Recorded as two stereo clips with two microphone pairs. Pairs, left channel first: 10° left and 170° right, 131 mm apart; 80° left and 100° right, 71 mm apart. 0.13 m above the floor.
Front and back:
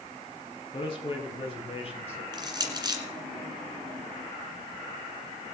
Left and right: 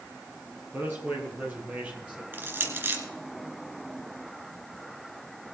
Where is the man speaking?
35° right, 4.5 m; by 2.2 s 25° right, 3.5 m.